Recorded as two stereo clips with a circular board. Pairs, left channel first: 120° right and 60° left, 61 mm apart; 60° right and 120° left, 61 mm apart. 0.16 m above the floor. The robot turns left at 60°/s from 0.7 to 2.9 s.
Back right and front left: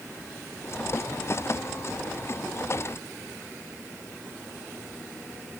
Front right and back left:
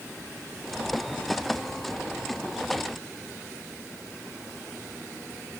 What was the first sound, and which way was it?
Only background noise.